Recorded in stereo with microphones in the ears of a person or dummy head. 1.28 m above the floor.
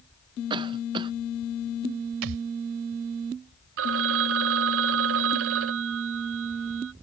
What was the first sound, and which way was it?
A cough, 25° right (ahead or behind).